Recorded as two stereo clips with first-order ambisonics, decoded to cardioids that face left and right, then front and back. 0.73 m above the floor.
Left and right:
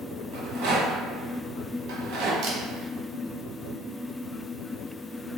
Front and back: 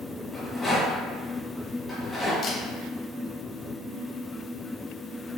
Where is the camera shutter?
55° right, 1.0 m.